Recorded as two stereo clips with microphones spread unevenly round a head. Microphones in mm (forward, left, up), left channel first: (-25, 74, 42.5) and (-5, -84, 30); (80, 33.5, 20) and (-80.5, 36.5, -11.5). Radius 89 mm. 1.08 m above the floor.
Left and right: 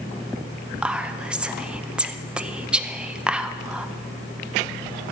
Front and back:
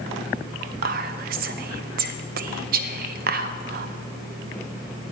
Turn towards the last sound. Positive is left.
turn(degrees=-165)